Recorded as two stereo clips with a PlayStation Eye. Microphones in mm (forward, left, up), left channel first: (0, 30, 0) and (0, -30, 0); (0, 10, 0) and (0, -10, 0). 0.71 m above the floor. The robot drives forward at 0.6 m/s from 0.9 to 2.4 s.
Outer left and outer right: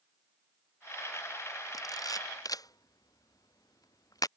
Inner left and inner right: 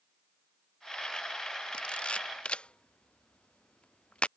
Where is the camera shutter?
75° left (ahead or behind); by 4.3 s 80° left.